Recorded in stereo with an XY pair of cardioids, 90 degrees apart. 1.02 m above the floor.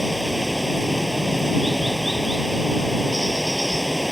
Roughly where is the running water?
Ahead.